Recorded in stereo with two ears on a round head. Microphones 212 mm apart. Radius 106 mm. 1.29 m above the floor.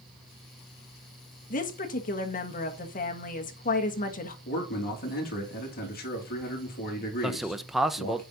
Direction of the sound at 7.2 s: Centre (ahead or behind).